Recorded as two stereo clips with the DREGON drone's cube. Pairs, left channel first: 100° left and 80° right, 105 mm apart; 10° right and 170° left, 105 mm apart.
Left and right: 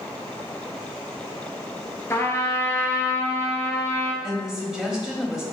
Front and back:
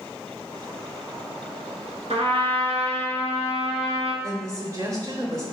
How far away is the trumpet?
About 1.2 m.